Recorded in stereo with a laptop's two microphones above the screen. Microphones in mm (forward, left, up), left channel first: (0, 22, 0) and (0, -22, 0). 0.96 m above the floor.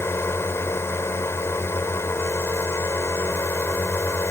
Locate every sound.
0.0 s a drone: 75° left (ahead or behind)